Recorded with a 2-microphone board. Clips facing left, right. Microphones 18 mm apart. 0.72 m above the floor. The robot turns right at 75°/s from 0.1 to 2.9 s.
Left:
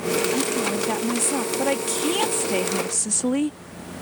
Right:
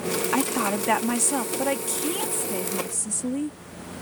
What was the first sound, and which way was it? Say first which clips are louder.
A woman speaking: left 1 dB; 100° right.